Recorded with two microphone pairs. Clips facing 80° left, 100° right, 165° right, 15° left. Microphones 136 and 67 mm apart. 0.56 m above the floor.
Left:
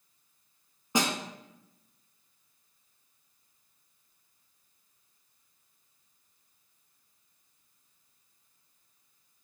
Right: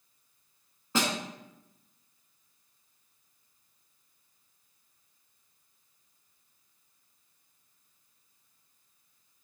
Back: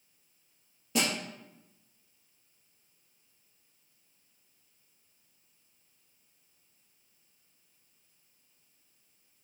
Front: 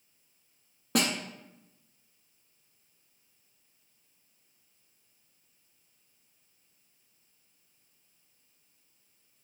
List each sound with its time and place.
0.9 s a snare drum: 10° left, 1.0 m